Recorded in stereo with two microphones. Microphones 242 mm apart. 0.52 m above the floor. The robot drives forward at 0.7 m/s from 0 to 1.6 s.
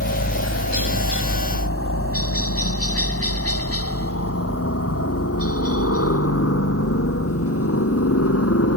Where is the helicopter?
65° left (ahead or behind); by 8.8 s 75° left (ahead or behind).